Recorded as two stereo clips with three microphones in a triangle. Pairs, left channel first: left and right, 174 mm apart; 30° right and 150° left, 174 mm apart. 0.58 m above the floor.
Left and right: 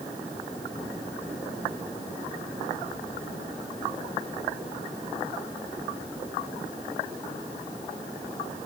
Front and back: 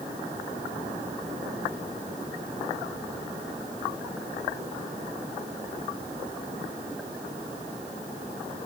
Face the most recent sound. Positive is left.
No sound to turn to.